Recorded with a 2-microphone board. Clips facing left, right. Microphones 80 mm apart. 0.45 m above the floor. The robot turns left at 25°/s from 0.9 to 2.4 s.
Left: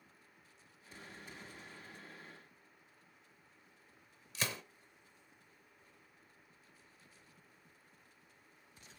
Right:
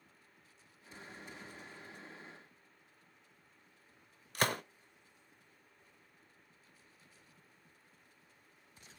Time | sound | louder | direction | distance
4.3 | a gunshot | right 7 dB | 55° right (ahead or behind) | 0.7 m